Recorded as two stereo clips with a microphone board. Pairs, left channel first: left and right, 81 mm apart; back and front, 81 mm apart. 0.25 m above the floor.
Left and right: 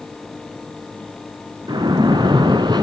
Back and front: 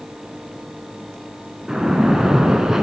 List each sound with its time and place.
1.7 s a splash: 80° right, 0.8 m